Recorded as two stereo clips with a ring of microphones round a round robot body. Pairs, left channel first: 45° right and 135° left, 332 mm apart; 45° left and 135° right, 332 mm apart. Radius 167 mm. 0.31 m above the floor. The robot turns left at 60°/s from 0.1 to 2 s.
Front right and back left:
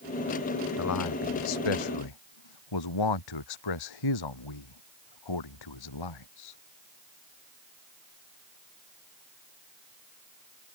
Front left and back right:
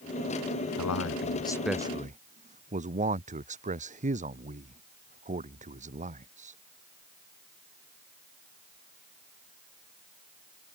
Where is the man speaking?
10° left; by 6.6 s 65° right.